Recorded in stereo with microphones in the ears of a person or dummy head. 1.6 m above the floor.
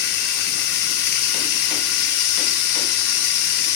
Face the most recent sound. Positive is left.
turn(degrees=50)  # may be behind; listen again after turning